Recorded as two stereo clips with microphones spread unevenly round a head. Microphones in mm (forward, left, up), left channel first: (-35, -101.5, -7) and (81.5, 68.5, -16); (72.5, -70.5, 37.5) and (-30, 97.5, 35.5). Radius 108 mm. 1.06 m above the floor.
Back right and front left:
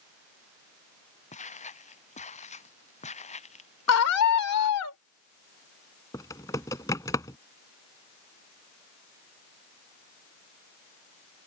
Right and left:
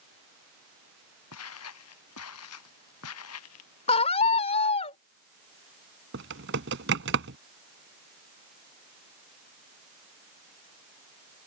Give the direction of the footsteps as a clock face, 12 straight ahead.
2 o'clock.